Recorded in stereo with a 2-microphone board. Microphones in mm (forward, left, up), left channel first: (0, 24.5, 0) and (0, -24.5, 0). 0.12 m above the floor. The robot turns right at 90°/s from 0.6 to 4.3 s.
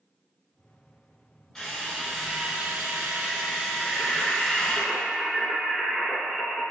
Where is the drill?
155° left, 0.9 m; by 4.8 s 45° left, 0.9 m.